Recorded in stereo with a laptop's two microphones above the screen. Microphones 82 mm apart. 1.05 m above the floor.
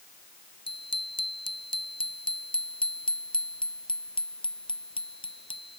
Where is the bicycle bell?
80° left.